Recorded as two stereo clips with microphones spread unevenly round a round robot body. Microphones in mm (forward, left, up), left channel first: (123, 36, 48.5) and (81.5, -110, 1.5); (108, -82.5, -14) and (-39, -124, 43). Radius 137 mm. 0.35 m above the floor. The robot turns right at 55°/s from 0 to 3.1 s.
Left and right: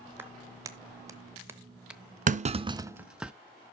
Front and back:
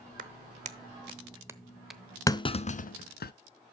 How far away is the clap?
About 0.8 m.